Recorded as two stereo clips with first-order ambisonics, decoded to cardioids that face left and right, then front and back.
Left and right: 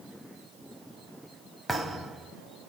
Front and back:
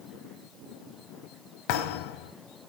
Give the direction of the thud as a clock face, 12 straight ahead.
12 o'clock.